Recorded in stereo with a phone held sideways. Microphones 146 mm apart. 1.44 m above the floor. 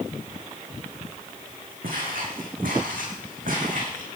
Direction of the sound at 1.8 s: 75° right (ahead or behind).